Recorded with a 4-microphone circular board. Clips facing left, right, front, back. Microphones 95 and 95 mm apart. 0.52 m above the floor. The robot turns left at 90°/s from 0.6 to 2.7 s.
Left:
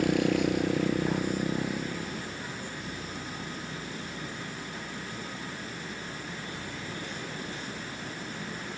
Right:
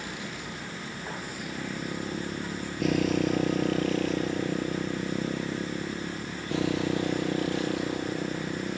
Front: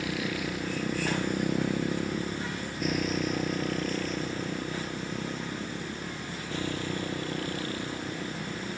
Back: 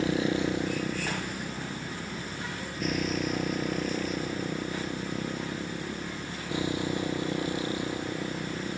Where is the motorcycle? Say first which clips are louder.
Left 13 dB, back 5 dB; 120° left; by 8.8 s 110° right.